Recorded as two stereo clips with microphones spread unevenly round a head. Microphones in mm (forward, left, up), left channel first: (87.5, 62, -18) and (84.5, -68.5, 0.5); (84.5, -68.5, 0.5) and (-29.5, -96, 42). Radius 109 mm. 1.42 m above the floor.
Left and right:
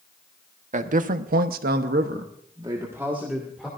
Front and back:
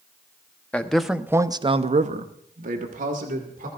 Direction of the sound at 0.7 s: 65° right.